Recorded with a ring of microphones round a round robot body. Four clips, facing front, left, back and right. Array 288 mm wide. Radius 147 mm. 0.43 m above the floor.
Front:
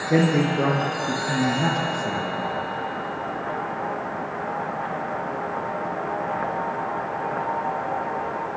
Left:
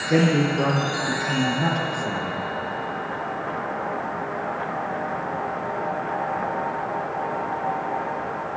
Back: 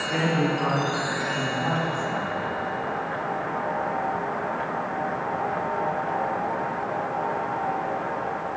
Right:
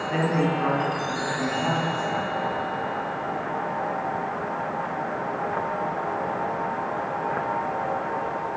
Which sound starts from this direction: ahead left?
A woman speaking, at 0.1 s.